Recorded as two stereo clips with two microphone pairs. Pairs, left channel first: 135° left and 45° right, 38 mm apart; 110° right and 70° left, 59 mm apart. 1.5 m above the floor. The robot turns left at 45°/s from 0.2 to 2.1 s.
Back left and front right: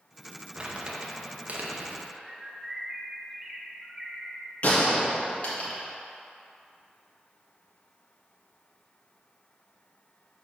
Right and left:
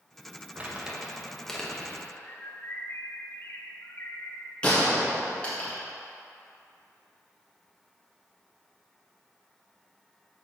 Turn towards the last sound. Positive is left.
turn(degrees=180)